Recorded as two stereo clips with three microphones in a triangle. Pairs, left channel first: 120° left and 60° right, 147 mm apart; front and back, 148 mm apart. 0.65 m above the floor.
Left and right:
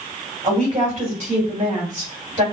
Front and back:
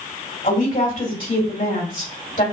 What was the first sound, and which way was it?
A woman speaking, 25° right.